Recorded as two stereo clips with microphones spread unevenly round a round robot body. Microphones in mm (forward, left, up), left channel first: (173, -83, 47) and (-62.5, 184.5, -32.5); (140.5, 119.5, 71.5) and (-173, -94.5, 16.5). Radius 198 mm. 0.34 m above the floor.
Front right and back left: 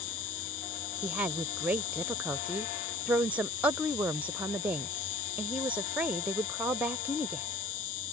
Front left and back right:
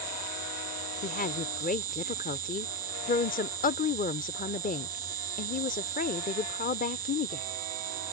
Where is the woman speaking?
85° left.